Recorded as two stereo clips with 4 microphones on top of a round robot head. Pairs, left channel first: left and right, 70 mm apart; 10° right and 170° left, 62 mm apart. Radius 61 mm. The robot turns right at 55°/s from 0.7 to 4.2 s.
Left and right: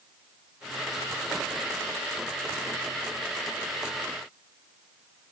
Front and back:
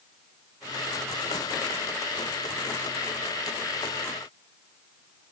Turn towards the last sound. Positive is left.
No sound to turn to.